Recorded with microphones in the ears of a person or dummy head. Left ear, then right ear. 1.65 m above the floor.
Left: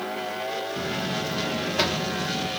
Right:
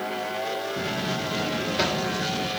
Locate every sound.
0.8 s a buzzer: 15° left (ahead or behind), 1.9 m